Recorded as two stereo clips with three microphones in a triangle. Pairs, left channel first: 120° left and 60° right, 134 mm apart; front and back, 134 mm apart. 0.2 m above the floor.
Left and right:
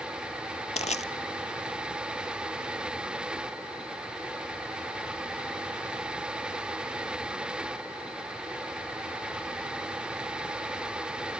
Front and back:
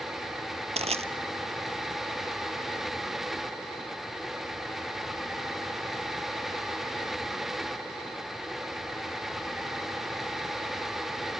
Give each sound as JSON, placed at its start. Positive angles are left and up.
{"t": 0.8, "sound": "crushing", "azimuth_deg": 145, "distance_m": 0.8}